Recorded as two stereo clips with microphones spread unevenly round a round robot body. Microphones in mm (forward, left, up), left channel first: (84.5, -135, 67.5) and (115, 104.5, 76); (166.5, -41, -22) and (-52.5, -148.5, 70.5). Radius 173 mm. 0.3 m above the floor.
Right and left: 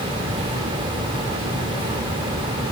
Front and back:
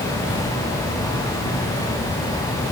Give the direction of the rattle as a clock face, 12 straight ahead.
I don't hear a rattle.